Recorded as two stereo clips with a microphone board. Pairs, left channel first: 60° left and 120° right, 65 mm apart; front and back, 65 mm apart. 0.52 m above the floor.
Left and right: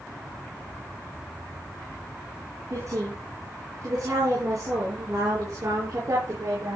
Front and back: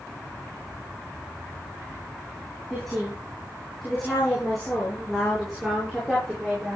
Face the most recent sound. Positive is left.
turn(degrees=-90)